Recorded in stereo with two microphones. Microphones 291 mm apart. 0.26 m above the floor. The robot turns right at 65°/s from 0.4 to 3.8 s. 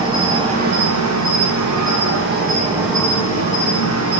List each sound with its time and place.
0.0 s an insect: 160° right, 3 m; by 4.2 s 60° left, 3 m